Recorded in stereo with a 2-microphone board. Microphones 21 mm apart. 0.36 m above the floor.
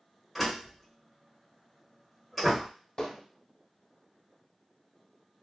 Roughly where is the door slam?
Centre.